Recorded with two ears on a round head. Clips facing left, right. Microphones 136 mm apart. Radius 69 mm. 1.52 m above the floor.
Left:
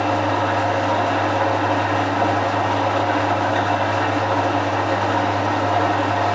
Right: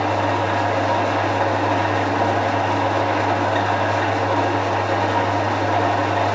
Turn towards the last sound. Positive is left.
turn(degrees=-15)  # may be behind; listen again after turning